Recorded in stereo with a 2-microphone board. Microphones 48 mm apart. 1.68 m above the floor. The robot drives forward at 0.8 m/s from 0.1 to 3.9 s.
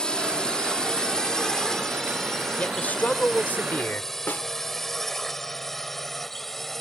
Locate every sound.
0.0 s a drone: 20° left (ahead or behind); by 6.8 s 5° left (ahead or behind)
2.6 s a man speaking: 30° left (ahead or behind); by 4.1 s 35° left (ahead or behind)
4.3 s a snare drum: 45° left (ahead or behind)